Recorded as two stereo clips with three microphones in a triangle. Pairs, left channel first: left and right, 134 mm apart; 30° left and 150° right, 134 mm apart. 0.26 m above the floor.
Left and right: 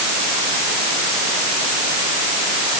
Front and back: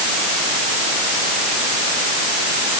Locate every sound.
Only background noise.